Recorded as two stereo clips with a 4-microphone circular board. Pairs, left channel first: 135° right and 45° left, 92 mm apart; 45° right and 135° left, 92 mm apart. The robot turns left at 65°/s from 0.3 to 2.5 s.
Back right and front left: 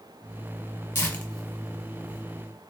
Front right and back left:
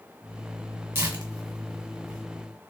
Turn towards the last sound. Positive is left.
turn(degrees=80)